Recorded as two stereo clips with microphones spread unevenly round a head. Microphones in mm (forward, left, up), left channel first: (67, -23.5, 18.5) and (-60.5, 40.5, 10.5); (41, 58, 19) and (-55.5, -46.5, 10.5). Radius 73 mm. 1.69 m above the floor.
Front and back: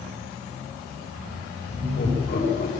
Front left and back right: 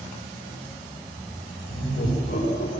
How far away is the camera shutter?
I don't hear a camera shutter.